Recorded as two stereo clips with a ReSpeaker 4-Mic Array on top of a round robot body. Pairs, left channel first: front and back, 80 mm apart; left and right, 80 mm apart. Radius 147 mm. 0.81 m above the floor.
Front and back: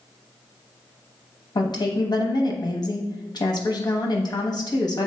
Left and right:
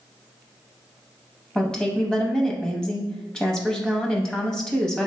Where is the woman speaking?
10° left, 0.9 m.